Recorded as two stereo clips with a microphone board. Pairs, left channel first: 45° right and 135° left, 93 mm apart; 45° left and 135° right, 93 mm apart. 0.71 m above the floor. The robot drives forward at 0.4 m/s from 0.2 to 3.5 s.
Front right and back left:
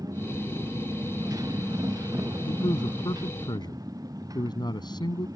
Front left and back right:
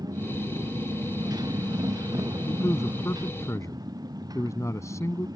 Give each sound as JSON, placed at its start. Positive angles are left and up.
{"t": 0.0, "sound": "a motorcycle", "azimuth_deg": 180}
{"t": 2.5, "sound": "a man speaking", "azimuth_deg": -10}